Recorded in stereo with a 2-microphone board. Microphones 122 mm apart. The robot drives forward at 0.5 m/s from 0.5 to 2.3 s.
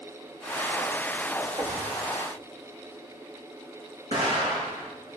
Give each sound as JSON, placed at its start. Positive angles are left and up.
{"t": 1.6, "sound": "knocking", "side_deg": -30, "distance_m": 4.5}
{"t": 4.1, "sound": "an explosion", "side_deg": -70, "distance_m": 5.0}